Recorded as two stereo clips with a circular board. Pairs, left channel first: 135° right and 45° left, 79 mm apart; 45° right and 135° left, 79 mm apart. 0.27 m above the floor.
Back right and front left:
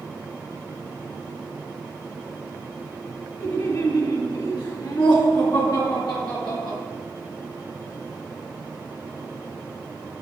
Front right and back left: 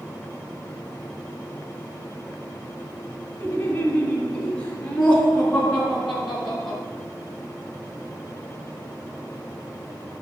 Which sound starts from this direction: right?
Laughter, at 3.4 s.